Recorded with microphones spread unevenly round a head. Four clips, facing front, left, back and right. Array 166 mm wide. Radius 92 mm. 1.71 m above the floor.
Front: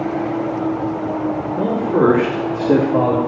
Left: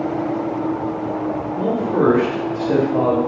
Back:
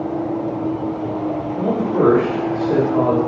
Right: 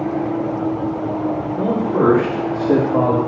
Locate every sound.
1.6 s a man speaking: 15° left, 2.5 m; by 3.2 s 15° right, 3 m